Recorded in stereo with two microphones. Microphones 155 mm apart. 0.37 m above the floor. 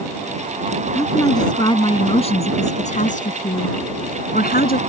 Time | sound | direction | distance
0.9 | a woman speaking | 20° left (ahead or behind) | ?